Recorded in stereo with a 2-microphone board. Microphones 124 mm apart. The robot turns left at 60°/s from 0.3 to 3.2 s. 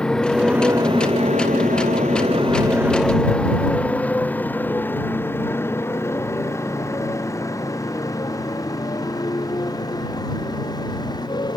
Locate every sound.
0.0 s a motorcycle: 5° left (ahead or behind); by 11.6 s 35° left (ahead or behind)